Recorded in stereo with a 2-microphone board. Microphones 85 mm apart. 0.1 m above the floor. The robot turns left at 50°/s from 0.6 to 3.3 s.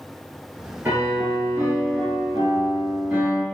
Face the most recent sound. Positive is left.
turn(degrees=-155)